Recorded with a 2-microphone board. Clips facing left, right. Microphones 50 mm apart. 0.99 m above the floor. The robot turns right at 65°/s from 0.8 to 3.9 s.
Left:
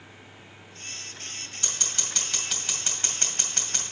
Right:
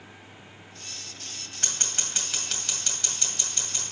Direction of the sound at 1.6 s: 55° right (ahead or behind).